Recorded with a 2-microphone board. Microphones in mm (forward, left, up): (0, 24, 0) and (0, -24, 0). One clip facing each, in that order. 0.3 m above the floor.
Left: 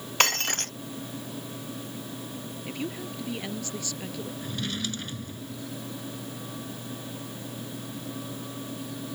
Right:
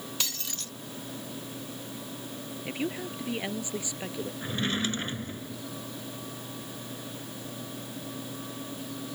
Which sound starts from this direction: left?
Breaking glass, at 0.2 s.